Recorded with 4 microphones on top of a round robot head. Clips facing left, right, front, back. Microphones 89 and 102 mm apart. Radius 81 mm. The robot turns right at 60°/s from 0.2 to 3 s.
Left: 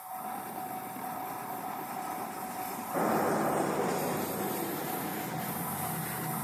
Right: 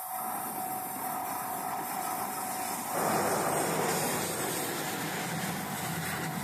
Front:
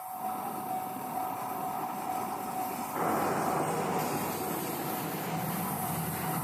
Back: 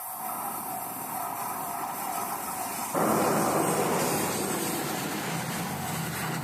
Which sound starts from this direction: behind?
An explosion, at 2.9 s.